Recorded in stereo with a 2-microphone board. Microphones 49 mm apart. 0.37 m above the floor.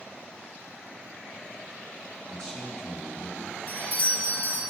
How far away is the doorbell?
About 1.8 m.